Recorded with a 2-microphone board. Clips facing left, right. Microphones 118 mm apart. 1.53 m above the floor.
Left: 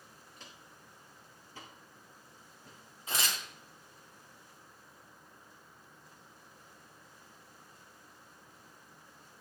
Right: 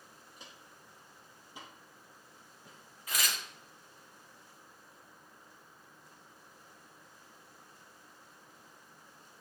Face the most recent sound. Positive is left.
turn(degrees=30)  # may be behind; listen again after turning